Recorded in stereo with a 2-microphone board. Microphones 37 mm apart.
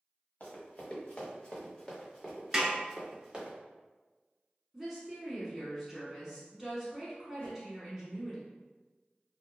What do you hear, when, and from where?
0.4 s running footsteps: 40° left (ahead or behind), 1.7 m; by 3.5 s 25° right (ahead or behind), 1.3 m
2.5 s a snare drum: 10° right (ahead or behind), 0.9 m
4.7 s a woman speaking: 5° right (ahead or behind), 1.0 m
7.4 s a whoosh: 30° left (ahead or behind), 1.0 m